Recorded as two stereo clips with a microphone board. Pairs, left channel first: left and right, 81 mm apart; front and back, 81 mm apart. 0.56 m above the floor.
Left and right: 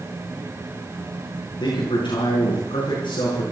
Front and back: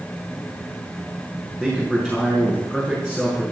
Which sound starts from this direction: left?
A man speaking, at 1.6 s.